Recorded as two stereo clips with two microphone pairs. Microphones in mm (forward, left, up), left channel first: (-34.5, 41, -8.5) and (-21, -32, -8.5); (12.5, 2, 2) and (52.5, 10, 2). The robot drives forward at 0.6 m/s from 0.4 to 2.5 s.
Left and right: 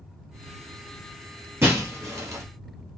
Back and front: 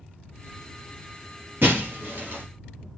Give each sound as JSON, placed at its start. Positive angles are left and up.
{"t": 1.6, "sound": "breaking glass", "azimuth_deg": -25, "distance_m": 2.0}